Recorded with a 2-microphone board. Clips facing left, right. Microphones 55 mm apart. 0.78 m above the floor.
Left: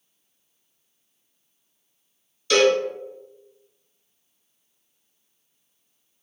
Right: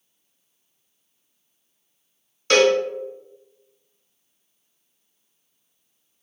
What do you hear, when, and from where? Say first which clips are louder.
2.5 s a cowbell: right 1 dB; 45° right (ahead or behind), 0.7 m